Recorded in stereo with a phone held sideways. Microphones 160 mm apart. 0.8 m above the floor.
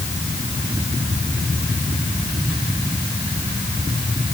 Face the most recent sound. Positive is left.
No sound to turn to.